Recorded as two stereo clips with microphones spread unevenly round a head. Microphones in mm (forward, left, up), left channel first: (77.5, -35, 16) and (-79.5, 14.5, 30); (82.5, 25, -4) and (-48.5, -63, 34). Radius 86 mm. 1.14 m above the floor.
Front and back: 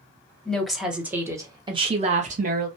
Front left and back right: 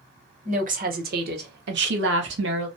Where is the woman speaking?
100° right, 1.2 m; by 2.7 s 165° right, 1.2 m.